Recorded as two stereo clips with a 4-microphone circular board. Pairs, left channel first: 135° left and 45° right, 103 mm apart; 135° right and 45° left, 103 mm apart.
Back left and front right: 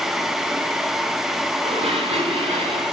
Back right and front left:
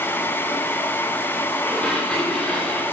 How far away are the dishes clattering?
About 10 m.